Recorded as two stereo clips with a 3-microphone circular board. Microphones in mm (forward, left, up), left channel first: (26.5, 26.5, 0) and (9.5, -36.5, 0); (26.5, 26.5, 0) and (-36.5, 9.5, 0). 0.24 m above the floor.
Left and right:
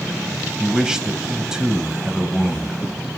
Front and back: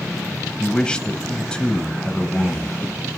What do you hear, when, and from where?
0.6 s a man speaking: 40° right, 1.1 m